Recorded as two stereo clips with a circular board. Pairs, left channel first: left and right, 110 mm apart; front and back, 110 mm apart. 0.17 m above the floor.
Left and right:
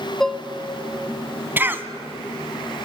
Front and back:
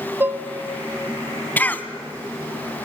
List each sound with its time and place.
0.2 s dishes clattering: 170° left, 0.7 m
1.6 s a cough: 50° right, 1.4 m